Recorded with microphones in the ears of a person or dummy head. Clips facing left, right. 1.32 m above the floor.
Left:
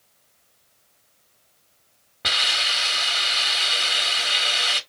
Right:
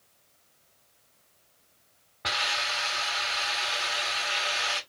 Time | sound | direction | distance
2.2 | a hiss | 45° left (ahead or behind) | 1.4 m